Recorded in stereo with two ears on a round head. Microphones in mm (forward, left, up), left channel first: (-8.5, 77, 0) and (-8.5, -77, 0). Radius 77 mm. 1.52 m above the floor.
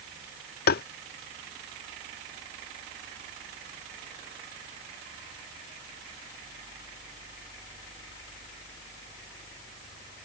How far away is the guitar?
No guitar in this recording.